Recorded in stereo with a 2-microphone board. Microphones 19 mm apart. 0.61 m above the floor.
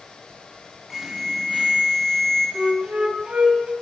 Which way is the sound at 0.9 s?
15° right (ahead or behind).